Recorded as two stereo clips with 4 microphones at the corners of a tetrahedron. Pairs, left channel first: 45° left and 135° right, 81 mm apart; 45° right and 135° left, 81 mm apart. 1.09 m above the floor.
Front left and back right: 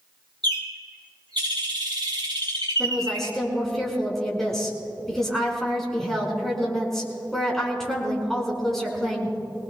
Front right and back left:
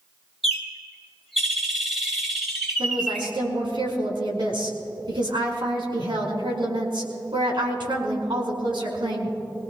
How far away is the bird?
About 2.5 m.